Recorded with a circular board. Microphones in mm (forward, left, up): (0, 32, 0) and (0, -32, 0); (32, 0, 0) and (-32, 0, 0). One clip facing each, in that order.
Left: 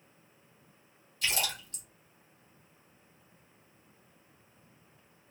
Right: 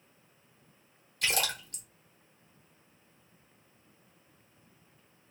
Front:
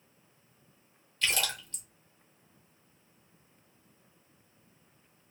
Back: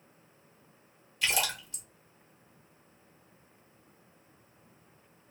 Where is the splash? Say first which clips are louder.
Right 2 dB, back 1 dB; 100° right, 1.2 m.